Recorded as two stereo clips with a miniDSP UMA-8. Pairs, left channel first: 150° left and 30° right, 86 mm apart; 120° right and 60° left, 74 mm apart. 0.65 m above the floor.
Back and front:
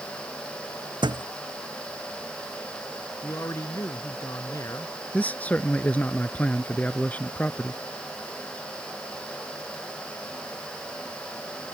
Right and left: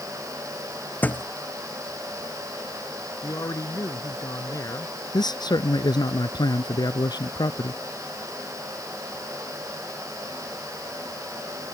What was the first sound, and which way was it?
A thud, 55° right.